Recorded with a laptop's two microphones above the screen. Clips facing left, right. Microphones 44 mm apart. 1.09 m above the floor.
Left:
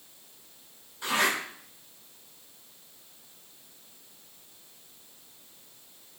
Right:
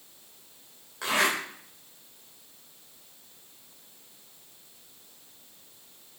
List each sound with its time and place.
1.0 s a zipper: 90° right, 3.5 m